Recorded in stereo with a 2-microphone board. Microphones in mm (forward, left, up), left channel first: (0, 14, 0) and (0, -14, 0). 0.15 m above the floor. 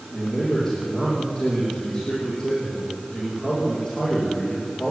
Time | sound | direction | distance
0.1 | a man speaking | 20° left (ahead or behind) | 8 m